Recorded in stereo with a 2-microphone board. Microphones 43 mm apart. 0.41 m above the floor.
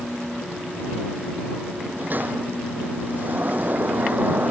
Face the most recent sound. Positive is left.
turn(degrees=-45)  # may be behind; listen again after turning